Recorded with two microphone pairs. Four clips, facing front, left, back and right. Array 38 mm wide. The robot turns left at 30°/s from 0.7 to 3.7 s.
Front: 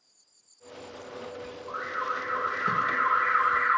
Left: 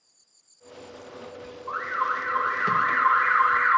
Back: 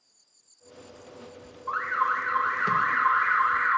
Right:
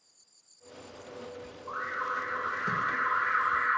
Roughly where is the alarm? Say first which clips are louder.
Left 6 dB, back 6 dB; behind.